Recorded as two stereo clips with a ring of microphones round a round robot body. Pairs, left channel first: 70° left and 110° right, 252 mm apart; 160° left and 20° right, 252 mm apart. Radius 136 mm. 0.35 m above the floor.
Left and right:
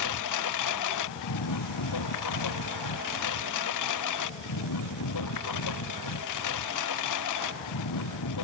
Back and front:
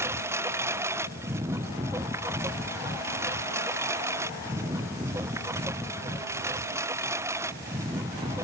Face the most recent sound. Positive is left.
turn(degrees=55)